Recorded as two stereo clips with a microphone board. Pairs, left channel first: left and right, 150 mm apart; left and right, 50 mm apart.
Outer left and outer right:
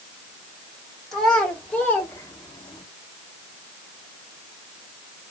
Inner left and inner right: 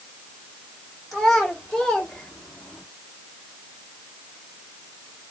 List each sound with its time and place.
1.1 s a child speaking: 5° left (ahead or behind), 1.6 m; by 2.8 s 35° left (ahead or behind), 0.8 m